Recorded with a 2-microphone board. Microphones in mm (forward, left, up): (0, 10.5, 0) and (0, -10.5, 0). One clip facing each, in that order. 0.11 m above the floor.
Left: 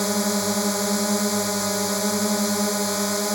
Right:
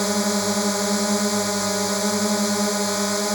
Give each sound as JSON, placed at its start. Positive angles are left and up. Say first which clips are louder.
{"t": 0.0, "sound": "a drone", "louder": "right 1 dB", "side_deg": -10}